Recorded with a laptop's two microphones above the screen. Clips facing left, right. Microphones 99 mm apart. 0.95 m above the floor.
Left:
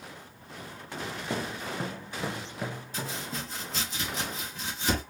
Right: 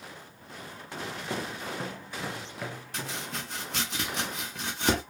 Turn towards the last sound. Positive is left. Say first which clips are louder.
# even
turn(degrees=-60)  # may be behind; listen again after turning